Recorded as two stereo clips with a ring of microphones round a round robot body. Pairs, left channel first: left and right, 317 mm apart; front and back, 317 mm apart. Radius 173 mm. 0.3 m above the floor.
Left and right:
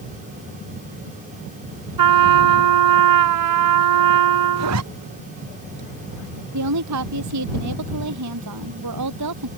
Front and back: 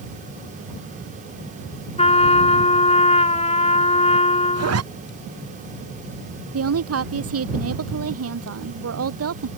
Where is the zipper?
140° right.